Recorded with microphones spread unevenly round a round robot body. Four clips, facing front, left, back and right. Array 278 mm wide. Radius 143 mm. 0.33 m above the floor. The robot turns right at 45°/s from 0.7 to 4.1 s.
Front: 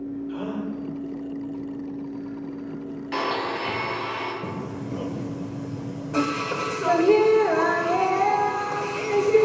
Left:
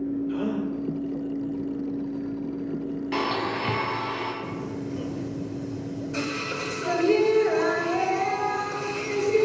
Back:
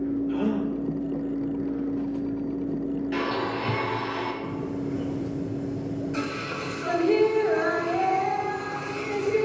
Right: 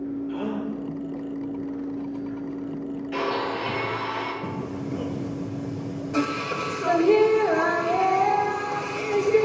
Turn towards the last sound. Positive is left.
turn(degrees=-35)